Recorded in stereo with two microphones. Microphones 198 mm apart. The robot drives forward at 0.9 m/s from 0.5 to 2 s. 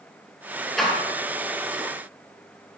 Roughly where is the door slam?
Centre.